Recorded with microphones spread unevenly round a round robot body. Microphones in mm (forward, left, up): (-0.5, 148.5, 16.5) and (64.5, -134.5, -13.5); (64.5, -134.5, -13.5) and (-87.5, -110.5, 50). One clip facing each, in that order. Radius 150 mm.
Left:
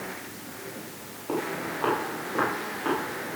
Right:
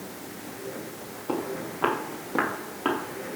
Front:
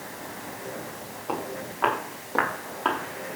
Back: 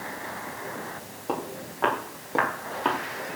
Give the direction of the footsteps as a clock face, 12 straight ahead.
5 o'clock.